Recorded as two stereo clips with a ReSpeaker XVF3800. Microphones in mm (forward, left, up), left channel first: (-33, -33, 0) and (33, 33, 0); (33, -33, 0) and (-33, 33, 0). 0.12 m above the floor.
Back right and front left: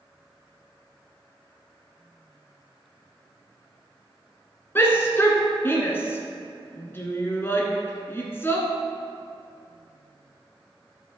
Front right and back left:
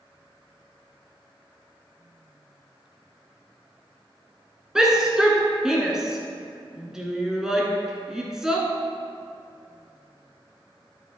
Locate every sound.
4.8 s a shout: 150° right, 1.5 m